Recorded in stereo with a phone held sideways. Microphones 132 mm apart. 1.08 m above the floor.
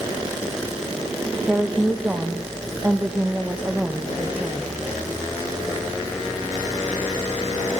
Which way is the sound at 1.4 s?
10° right (ahead or behind).